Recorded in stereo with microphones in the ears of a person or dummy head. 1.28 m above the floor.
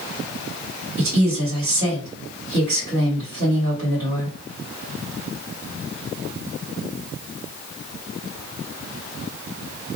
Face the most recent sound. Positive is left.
turn(degrees=-70)  # may be behind; listen again after turning